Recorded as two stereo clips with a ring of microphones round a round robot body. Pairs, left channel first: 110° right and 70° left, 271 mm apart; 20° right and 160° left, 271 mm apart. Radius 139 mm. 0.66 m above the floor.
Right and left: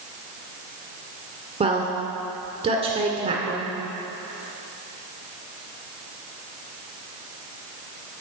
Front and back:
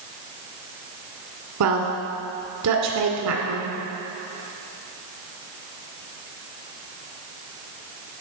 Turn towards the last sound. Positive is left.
turn(degrees=135)